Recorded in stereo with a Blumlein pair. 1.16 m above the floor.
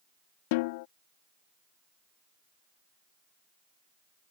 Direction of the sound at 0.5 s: 50° left.